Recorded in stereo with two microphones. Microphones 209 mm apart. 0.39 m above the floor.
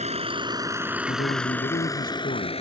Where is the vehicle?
35° right (ahead or behind); by 2.6 s 30° left (ahead or behind).